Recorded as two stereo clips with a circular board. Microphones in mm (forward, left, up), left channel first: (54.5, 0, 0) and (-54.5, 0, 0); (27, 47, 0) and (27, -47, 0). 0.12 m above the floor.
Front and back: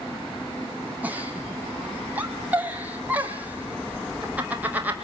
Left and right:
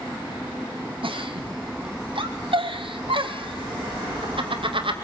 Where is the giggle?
105° right, 2 m.